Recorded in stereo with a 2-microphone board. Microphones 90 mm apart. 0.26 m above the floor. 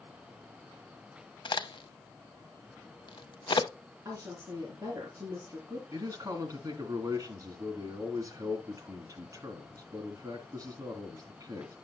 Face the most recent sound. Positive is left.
turn(degrees=-40)  # may be behind; listen again after turning